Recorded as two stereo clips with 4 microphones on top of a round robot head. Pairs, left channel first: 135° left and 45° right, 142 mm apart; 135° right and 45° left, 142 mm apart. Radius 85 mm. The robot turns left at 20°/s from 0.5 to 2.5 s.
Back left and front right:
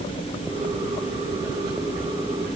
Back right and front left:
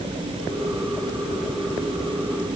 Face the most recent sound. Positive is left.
No sound to turn to.